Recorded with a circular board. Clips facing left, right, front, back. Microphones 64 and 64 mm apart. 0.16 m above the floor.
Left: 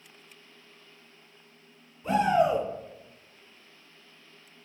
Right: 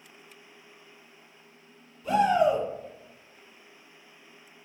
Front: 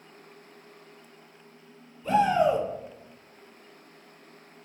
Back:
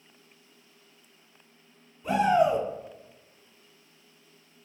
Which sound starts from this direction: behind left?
A shout, at 2.0 s.